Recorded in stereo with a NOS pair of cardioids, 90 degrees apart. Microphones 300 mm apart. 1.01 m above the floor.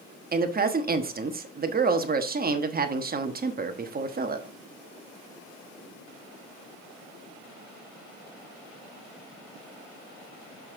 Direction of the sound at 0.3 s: 30° right.